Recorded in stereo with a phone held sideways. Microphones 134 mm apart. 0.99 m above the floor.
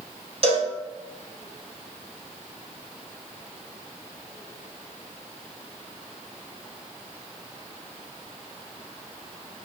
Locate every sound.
0.4 s a cowbell: 50° right (ahead or behind), 0.7 m